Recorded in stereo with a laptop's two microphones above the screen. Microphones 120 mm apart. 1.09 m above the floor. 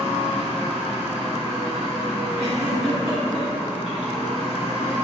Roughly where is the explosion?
I don't hear an explosion.